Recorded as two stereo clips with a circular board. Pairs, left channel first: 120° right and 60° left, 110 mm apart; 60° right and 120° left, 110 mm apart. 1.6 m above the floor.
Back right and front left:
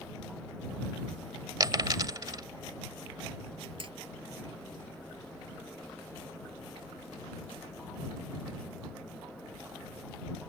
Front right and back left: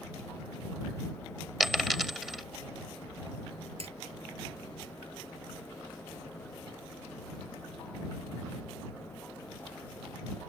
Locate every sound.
1.6 s a dropped coin: 35° left
3.8 s hammering: 95° left